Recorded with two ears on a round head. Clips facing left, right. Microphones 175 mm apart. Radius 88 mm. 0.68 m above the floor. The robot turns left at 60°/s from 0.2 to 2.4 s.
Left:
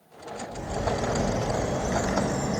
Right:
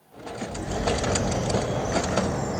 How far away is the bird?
About 1.7 m.